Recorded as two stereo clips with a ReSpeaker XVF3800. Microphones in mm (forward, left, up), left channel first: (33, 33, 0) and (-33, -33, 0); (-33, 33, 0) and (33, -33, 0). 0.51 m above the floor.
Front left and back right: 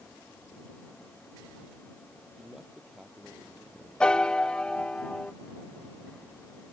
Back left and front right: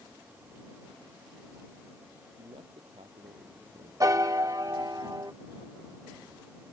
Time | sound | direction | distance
2.4 | a man speaking | 45° right | ?
4.0 | a piano | 30° right | ?